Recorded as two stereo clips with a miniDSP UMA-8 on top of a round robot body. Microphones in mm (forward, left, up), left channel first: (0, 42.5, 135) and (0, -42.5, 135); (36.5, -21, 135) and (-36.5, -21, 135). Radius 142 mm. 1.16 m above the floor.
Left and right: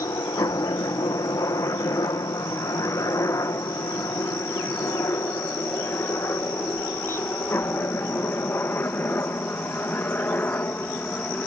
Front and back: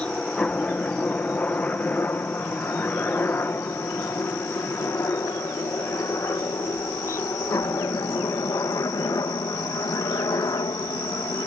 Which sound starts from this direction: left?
A helicopter, at 0.0 s.